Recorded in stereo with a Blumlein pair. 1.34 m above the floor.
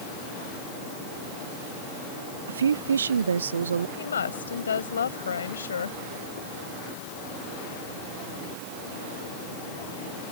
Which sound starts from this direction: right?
A woman speaking, at 2.5 s.